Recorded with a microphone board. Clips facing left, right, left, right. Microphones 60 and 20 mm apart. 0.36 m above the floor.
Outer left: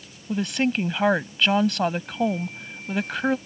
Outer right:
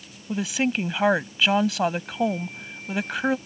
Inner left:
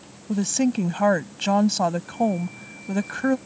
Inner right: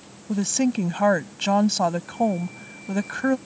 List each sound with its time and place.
0.3 s a woman speaking: 5° right (ahead or behind)